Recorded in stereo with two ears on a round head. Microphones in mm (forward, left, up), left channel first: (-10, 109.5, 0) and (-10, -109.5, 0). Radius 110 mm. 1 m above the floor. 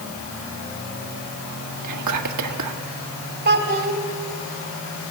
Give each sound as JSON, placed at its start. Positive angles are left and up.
{"t": 1.8, "sound": "whispering", "side_deg": -85, "distance_m": 1.7}
{"t": 3.5, "sound": "a child speaking", "side_deg": -40, "distance_m": 2.0}